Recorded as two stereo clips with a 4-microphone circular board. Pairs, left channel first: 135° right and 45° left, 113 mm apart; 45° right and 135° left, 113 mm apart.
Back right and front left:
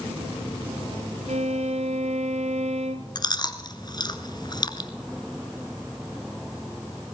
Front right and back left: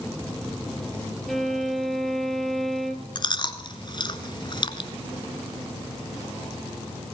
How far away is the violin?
About 1.6 m.